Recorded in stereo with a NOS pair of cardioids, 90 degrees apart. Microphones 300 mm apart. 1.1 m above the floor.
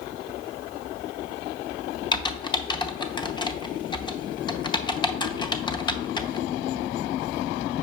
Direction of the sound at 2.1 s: 15° left.